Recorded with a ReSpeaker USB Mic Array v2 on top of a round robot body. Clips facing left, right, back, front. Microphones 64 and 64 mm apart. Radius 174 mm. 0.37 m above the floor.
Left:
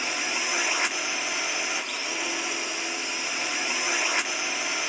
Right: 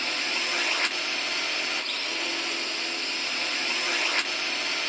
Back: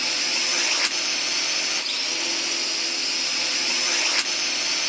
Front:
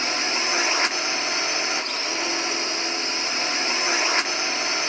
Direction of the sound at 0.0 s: 20° left.